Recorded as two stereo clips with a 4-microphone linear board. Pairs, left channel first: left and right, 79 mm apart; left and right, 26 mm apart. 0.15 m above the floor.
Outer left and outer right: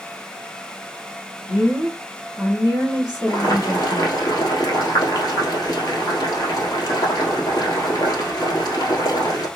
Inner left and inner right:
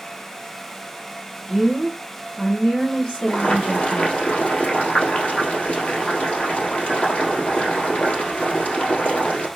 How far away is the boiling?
About 1.4 m.